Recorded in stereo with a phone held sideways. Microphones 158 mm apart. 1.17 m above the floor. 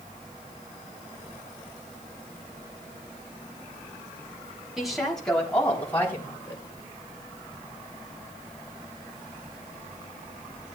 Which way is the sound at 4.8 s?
Centre (ahead or behind).